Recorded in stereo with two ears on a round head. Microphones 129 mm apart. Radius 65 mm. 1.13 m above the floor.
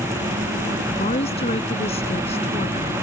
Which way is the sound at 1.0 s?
45° left (ahead or behind).